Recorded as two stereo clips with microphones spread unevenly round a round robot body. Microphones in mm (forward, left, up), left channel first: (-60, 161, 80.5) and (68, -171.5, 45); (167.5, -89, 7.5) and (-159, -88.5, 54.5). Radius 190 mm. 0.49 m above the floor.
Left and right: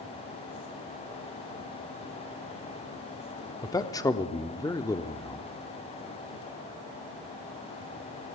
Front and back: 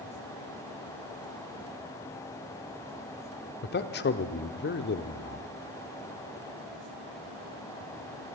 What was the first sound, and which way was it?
A man speaking, 30° left.